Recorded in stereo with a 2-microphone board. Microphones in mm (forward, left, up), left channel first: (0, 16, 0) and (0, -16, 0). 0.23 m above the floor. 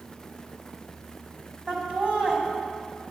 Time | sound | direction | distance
1.7 | laughter | 35° right (ahead or behind) | 1.4 m